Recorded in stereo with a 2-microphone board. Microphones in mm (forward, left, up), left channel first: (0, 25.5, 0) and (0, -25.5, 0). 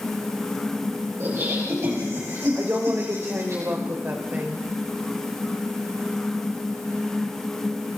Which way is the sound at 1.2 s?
60° right (ahead or behind).